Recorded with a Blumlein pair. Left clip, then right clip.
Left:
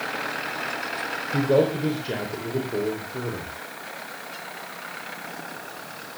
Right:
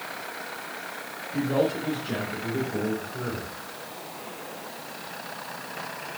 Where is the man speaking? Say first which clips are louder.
Left 4 dB; 30° left, 4 m; by 3.5 s 15° left, 3.5 m.